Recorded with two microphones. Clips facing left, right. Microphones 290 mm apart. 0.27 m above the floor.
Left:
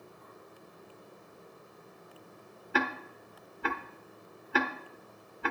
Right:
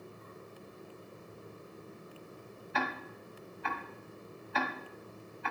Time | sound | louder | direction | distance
2.7 | ticking | left 5 dB | 80° left | 0.8 m